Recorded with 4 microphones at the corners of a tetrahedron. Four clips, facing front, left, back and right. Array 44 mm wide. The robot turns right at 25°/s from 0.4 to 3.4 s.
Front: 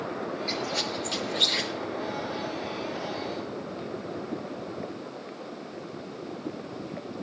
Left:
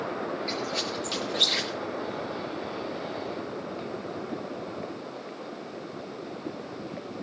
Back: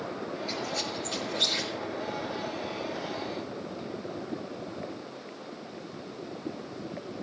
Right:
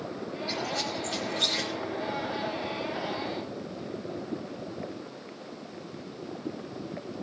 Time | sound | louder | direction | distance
0.5 | a squeak | left 1 dB, front 3 dB | 35° left | 9 m